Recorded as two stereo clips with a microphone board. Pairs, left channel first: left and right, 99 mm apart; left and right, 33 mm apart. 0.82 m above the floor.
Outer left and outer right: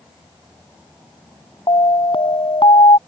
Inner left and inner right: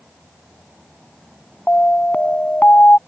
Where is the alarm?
65° left (ahead or behind).